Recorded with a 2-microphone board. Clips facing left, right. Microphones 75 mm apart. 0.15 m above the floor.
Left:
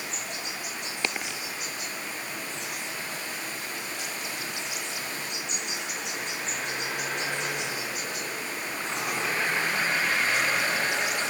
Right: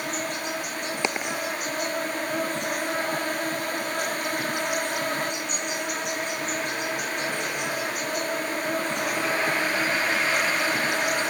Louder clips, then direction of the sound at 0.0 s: Right 7 dB; 50° right (ahead or behind).